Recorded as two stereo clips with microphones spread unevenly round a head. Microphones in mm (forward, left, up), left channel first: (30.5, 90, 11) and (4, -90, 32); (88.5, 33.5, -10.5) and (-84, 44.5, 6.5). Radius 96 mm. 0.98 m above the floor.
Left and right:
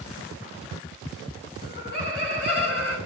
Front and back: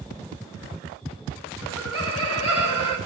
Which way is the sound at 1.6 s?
55° left.